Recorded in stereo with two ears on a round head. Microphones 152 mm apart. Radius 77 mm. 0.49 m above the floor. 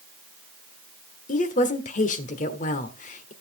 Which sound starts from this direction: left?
A woman speaking, at 1.3 s.